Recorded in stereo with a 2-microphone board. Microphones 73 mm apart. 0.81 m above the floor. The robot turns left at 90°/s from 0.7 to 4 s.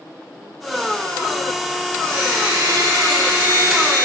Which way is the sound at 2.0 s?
25° left.